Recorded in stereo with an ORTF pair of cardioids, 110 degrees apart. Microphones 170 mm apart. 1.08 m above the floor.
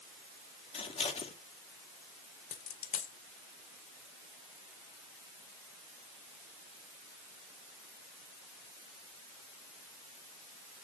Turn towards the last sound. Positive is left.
turn(degrees=55)